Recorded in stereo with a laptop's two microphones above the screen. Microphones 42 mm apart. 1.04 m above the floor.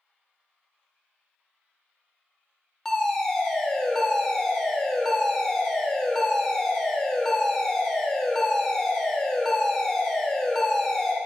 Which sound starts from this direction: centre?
A fire alarm, at 2.9 s.